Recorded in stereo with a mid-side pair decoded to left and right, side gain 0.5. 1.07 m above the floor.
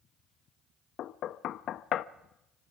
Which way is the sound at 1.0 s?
60° left.